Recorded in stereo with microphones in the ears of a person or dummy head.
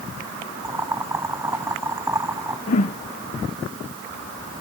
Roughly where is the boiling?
Centre.